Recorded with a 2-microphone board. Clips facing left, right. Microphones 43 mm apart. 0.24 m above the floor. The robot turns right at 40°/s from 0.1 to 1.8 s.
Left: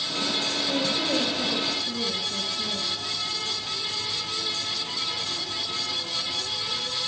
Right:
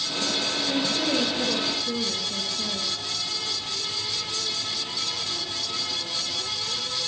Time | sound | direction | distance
0.7 | a woman speaking | 140° right | 5 m